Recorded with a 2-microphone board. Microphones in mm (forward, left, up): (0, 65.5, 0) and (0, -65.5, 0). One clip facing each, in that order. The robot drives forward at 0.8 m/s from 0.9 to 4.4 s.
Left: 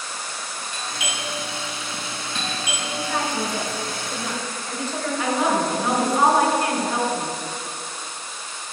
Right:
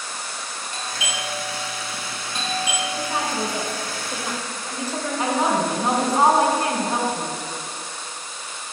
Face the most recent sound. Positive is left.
turn(degrees=-25)  # may be behind; listen again after turning